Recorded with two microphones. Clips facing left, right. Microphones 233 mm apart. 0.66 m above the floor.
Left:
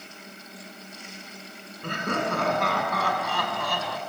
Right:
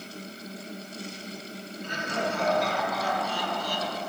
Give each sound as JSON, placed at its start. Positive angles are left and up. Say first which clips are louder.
{"t": 1.8, "sound": "laughter", "louder": "left 3 dB", "side_deg": 65, "distance_m": 7.0}